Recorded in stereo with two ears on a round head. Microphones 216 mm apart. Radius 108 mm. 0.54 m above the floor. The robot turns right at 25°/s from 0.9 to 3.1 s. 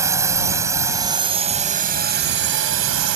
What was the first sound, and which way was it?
A drone, 165° right.